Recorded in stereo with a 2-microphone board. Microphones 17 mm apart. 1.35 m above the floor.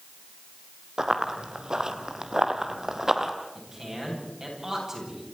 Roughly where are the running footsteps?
Right.